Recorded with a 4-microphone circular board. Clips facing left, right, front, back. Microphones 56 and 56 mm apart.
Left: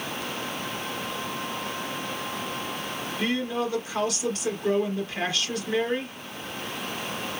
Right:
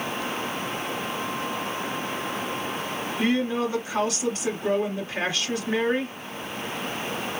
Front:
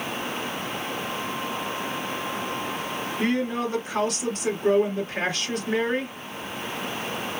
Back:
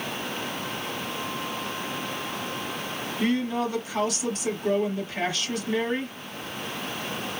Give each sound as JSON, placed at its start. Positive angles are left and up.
{"t": 3.2, "sound": "a woman speaking", "azimuth_deg": -30, "distance_m": 3.0}